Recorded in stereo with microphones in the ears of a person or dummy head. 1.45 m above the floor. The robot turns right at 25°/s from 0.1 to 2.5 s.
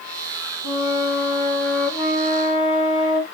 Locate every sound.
0.6 s a flute: 80° left, 1.7 m; by 3.2 s 130° left, 1.7 m